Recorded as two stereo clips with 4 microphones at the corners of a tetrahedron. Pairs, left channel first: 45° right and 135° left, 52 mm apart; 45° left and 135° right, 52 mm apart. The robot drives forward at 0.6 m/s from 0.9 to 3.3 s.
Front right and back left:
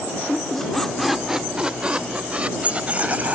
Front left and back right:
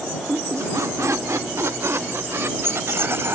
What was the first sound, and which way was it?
A squeak, 130° right.